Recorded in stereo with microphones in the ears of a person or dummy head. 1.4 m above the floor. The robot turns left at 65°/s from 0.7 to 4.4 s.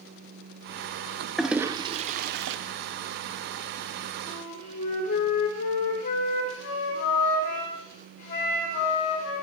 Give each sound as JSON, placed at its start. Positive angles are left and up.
{"t": 1.4, "sound": "a toilet flushing", "side_deg": 0, "distance_m": 0.5}
{"t": 4.3, "sound": "a flute", "side_deg": 40, "distance_m": 3.0}